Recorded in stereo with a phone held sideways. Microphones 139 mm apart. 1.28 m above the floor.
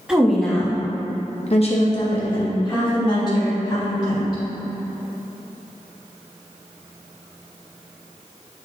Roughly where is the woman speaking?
Centre.